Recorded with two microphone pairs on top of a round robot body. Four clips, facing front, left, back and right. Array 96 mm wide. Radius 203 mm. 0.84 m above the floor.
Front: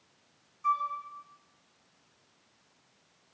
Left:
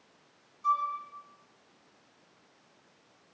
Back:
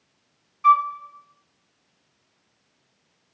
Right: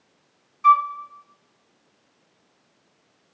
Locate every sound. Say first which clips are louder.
0.6 s a flute: right 12 dB, back 12 dB; 130° right, 3 m